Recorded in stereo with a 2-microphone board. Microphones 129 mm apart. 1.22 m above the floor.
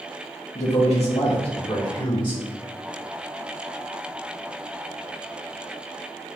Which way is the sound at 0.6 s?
60° left (ahead or behind).